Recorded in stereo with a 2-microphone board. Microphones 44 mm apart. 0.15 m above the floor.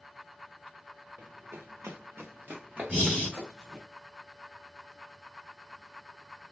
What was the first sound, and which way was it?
Running footsteps, 60° right (ahead or behind).